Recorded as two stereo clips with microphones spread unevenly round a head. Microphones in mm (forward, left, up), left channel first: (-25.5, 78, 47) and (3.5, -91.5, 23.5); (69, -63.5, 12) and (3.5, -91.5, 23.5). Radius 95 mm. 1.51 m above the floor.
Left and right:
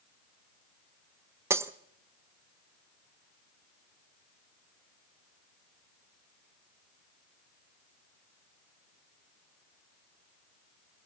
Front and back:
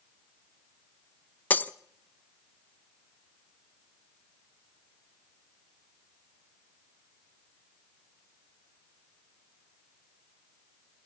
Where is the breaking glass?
10° right, 0.7 m.